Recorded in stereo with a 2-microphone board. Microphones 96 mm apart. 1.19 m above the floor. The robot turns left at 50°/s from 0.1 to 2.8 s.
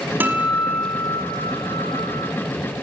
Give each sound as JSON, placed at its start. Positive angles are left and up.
{"t": 0.2, "sound": "a guitar", "azimuth_deg": -160, "distance_m": 5.0}